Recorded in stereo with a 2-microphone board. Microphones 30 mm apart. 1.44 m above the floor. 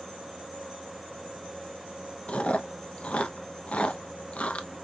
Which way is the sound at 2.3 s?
50° left (ahead or behind).